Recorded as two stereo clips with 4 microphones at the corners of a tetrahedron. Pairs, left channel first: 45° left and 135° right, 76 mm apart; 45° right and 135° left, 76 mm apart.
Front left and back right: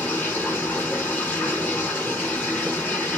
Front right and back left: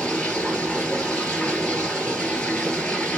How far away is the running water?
About 1.4 m.